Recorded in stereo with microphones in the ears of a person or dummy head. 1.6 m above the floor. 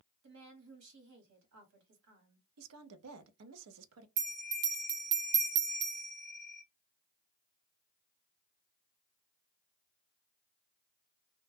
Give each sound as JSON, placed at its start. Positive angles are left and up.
{"t": 0.2, "sound": "a woman speaking", "side_deg": -80, "distance_m": 1.2}
{"t": 2.6, "sound": "a woman speaking", "side_deg": -80, "distance_m": 0.5}
{"t": 4.2, "sound": "a bell", "side_deg": -50, "distance_m": 0.7}